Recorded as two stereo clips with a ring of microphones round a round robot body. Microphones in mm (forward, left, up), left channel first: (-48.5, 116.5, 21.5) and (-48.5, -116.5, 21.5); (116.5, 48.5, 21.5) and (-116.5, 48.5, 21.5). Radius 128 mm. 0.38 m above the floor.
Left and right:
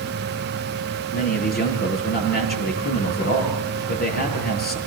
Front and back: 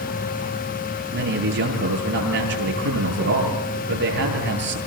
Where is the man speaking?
140° left, 10 m.